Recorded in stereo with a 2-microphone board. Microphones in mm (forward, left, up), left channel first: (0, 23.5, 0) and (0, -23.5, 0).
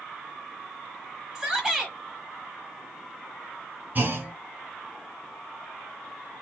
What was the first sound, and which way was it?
A shout, 15° right (ahead or behind).